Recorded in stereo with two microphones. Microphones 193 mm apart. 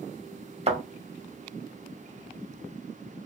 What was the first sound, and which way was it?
A thud, 35° right (ahead or behind).